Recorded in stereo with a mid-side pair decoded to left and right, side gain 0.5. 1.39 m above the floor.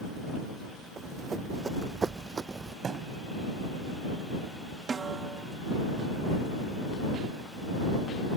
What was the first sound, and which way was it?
Running footsteps, 35° right.